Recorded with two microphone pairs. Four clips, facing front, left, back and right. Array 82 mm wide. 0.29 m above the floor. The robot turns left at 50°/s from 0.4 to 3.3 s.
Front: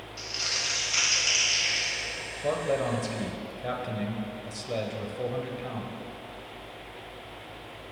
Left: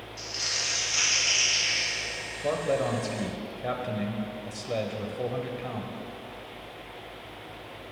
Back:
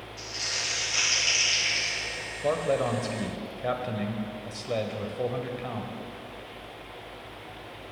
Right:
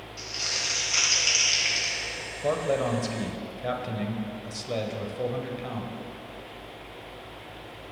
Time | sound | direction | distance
0.2 | crumpling | 25° right | 3 m
2.4 | a man speaking | 140° right | 0.9 m